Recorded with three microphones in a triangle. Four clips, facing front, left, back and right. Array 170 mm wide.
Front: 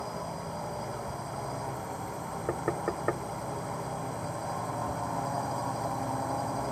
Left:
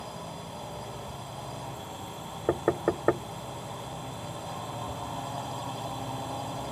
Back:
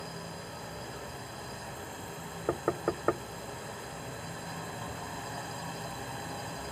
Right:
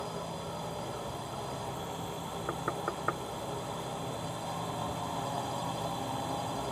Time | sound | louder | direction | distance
0.0 | a drone | right 2 dB, front 6 dB | straight ahead | ?
2.5 | knocking | left 10 dB, back 1 dB | 95° left | ?